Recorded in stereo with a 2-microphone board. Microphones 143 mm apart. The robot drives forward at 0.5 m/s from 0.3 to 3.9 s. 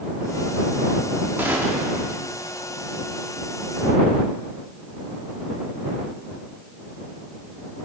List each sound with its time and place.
1.4 s a gunshot: 15° right (ahead or behind), 1.1 m; by 2.0 s 10° right (ahead or behind), 1.3 m